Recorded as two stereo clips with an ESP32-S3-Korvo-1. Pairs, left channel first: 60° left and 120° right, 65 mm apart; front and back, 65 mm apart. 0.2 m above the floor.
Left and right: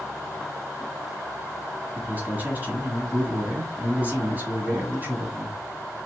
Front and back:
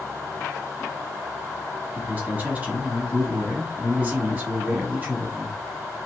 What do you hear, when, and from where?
1.9 s a man speaking: 150° right, 1.2 m